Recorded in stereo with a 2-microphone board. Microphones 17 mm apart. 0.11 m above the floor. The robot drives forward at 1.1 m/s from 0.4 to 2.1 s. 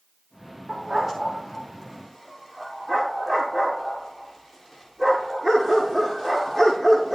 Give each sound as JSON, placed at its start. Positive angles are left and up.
{"t": 0.7, "sound": "a dog barking", "side_deg": -20, "distance_m": 6.5}